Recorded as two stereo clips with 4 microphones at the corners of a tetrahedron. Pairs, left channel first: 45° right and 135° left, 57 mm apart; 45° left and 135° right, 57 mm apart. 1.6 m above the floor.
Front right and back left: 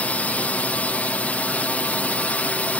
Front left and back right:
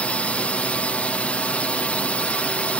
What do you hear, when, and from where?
0.0 s a drone: 5° right